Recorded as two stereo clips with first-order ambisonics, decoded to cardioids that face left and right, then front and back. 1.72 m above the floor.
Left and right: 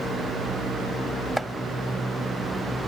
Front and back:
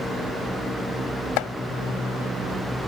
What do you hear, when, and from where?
1.4 s chopping: straight ahead